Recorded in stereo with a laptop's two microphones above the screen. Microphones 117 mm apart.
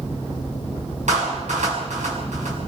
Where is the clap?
90° right, 6.5 m.